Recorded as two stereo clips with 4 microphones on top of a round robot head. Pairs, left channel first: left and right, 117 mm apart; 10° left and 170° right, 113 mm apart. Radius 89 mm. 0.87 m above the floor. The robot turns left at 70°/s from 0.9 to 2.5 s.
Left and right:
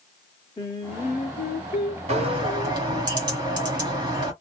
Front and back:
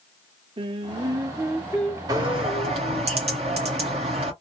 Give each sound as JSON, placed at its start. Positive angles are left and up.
{"t": 0.6, "sound": "singing", "azimuth_deg": 155, "distance_m": 0.7}
{"t": 2.1, "sound": "a bird", "azimuth_deg": -115, "distance_m": 1.8}